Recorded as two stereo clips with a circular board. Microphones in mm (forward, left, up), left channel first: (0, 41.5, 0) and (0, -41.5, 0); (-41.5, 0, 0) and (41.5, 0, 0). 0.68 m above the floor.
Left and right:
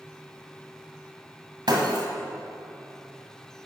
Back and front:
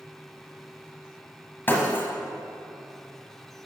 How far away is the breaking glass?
About 1.6 m.